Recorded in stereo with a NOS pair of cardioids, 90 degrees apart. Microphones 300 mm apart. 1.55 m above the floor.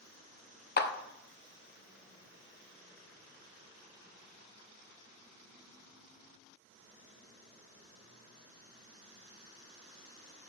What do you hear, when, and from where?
0.8 s a clap: 35° left, 0.8 m